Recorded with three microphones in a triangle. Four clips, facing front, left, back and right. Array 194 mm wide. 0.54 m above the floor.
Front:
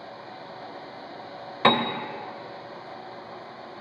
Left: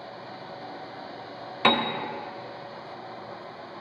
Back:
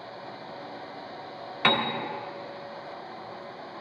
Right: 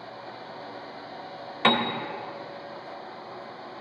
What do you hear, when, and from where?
1.6 s a piano: 10° left, 0.6 m